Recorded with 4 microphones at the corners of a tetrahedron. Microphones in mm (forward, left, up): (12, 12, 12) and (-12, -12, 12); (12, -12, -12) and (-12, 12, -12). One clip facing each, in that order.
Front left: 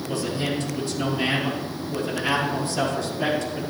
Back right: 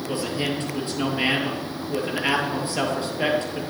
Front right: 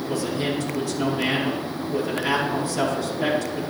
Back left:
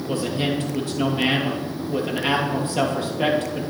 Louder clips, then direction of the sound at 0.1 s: Even, back left 2 dB; 175° left.